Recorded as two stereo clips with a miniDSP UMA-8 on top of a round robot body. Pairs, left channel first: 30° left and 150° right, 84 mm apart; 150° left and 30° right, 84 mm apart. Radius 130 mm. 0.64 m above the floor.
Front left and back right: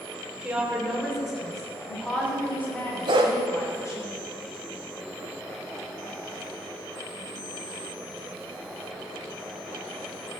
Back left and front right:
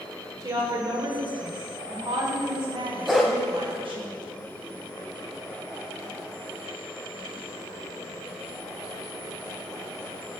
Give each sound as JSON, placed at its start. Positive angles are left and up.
{"t": 0.4, "sound": "a woman speaking", "azimuth_deg": -70, "distance_m": 3.0}
{"t": 3.1, "sound": "a dog barking", "azimuth_deg": -115, "distance_m": 0.9}